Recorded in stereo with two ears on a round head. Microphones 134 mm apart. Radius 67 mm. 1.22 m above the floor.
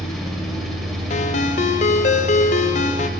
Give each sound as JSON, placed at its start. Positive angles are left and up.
{"t": 0.0, "sound": "an engine running", "side_deg": 0, "distance_m": 2.0}
{"t": 1.1, "sound": "a ringtone", "side_deg": 50, "distance_m": 0.6}